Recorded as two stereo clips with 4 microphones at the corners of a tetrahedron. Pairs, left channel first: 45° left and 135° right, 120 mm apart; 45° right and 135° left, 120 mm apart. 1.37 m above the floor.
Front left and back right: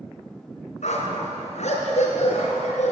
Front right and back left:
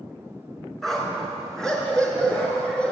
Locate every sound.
0.8 s a dog barking: 40° left, 5 m; by 2.9 s 35° left, 6 m